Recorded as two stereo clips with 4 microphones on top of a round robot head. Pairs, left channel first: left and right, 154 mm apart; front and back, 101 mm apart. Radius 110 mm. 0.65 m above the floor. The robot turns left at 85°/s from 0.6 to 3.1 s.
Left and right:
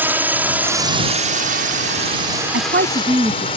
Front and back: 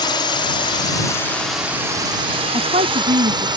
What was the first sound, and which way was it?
A drone, 15° right.